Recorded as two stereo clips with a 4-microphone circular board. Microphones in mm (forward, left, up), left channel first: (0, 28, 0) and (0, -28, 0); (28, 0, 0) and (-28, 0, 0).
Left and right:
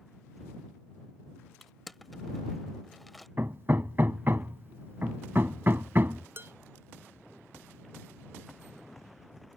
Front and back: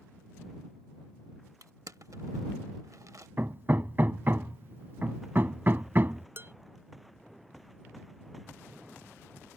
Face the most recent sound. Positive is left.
turn(degrees=-135)